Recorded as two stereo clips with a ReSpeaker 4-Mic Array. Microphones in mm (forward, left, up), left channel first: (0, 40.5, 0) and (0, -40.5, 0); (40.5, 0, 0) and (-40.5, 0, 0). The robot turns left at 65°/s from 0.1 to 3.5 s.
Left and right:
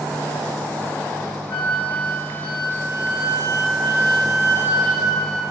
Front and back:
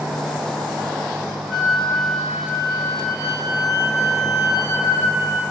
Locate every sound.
1.5 s a flute: 80° left, 0.7 m; by 5.4 s 50° right, 0.7 m